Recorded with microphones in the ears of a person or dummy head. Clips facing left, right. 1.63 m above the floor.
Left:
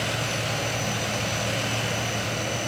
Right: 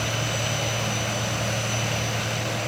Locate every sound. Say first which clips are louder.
0.0 s an insect: even; centre (ahead or behind), 1.7 m